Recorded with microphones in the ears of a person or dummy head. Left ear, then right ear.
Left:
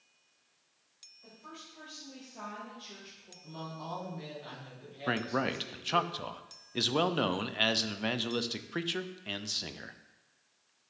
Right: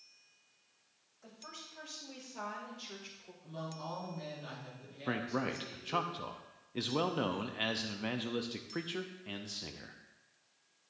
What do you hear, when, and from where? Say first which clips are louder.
1.2 s a woman speaking: right 1 dB; 55° right (ahead or behind), 2.5 m; by 3.3 s 65° right (ahead or behind), 1.5 m
3.4 s a woman speaking: left 1 dB; centre (ahead or behind), 4 m
5.1 s a man speaking: left 4 dB; 15° left (ahead or behind), 0.5 m